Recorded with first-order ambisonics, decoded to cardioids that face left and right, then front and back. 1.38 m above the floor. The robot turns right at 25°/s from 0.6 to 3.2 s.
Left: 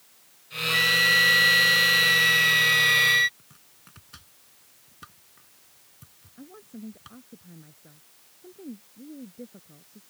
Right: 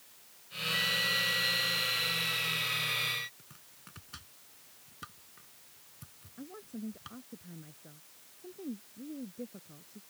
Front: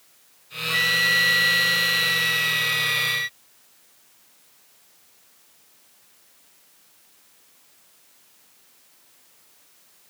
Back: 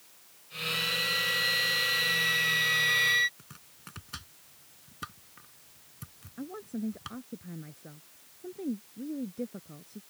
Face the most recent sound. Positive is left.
turn(degrees=180)